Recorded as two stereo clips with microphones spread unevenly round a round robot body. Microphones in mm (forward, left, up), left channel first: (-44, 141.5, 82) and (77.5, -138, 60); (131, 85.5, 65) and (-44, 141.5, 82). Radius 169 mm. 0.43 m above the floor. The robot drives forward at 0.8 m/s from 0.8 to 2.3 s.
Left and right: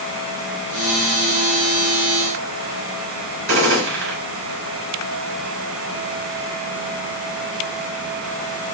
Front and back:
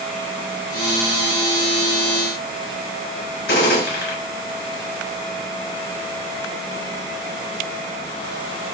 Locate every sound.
3.5 s a gunshot: 25° right, 3.5 m